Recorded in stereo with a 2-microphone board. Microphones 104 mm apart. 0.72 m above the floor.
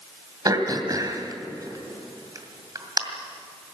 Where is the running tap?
I don't hear a running tap.